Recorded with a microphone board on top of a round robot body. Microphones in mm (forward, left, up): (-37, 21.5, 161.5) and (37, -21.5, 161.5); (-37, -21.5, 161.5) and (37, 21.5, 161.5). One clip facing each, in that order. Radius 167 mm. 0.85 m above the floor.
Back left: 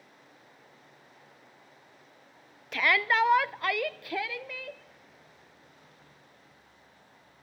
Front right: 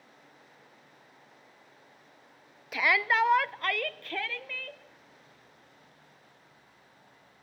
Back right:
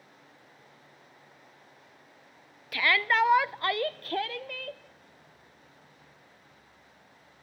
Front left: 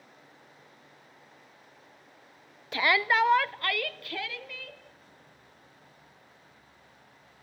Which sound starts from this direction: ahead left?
A shout, at 2.7 s.